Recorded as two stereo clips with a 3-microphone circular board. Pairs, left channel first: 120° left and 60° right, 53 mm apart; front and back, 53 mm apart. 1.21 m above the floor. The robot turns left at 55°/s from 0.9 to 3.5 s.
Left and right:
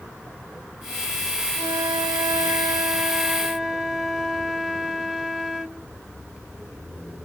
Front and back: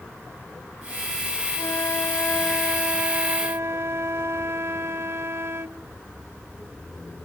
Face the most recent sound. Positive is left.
turn(degrees=-140)